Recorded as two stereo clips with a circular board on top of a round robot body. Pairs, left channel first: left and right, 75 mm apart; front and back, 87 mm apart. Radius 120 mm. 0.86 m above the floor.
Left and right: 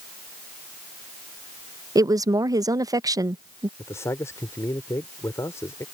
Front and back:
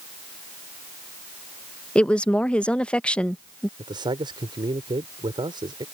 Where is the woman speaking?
75° right.